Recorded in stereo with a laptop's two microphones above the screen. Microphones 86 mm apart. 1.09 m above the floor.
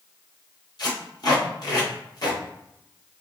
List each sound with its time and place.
0.8 s tape being pulled: 55° left (ahead or behind), 1.2 m